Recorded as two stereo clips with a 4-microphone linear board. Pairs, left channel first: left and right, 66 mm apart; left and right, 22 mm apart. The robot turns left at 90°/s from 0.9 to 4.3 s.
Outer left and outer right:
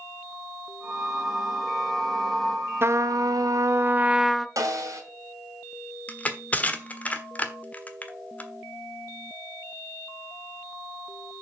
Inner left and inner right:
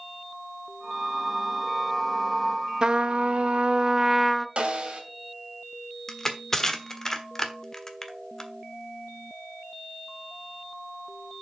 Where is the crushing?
25° left (ahead or behind), 1.2 m.